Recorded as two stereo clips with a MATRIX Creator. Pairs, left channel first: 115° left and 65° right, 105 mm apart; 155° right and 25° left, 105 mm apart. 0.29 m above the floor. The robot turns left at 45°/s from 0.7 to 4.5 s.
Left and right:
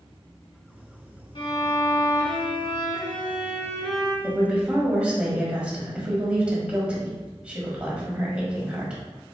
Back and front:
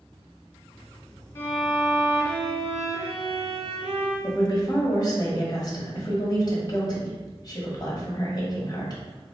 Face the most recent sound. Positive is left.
turn(degrees=-140)